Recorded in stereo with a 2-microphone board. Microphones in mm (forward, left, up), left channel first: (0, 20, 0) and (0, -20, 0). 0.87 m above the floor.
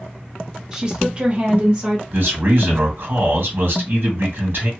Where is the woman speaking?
20° right (ahead or behind), 0.8 m; by 2.0 s 30° right (ahead or behind), 1.2 m.